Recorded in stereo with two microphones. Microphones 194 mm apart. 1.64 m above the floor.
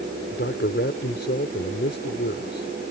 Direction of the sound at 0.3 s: 70° left (ahead or behind).